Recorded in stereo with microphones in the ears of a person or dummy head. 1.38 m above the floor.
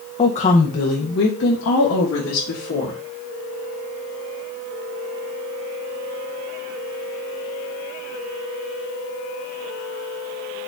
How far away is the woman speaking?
About 0.9 m.